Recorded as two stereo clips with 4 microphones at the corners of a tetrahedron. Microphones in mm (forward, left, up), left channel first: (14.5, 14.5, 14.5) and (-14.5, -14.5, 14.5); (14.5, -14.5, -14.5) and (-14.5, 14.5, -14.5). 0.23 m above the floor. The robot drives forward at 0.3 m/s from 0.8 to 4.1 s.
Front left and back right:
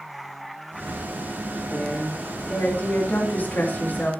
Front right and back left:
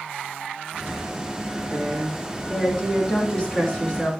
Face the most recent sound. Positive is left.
turn(degrees=15)